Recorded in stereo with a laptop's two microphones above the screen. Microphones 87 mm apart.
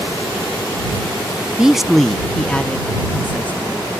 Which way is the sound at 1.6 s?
10° right (ahead or behind).